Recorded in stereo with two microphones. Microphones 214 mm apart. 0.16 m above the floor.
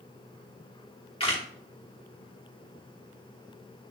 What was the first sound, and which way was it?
A camera shutter, 25° left (ahead or behind).